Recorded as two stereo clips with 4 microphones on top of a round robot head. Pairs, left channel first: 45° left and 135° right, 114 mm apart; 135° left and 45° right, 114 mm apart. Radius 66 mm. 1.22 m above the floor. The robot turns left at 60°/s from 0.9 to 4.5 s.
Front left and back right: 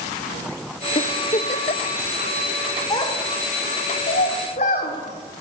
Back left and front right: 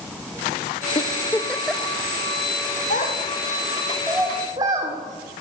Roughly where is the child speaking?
Left.